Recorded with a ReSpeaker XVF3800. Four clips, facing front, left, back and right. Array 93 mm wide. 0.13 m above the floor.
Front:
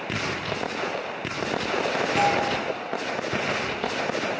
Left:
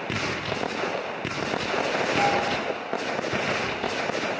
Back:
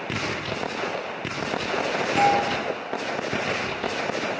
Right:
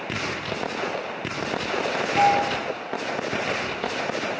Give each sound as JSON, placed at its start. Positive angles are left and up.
{"t": 2.2, "sound": "a doorbell", "azimuth_deg": -115, "distance_m": 4.5}